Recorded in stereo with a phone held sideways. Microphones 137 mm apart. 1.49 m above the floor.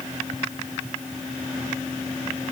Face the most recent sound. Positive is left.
No sound to turn to.